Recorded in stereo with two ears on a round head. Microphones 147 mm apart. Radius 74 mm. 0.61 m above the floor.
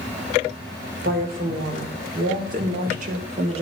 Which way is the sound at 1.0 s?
60° right (ahead or behind).